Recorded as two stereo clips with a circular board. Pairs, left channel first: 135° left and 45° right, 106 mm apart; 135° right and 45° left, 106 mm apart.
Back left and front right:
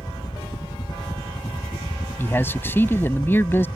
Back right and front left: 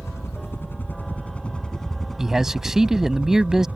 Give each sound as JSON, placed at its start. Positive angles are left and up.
{"t": 0.0, "sound": "a helicopter", "azimuth_deg": 170}
{"t": 2.2, "sound": "a man speaking", "azimuth_deg": 125}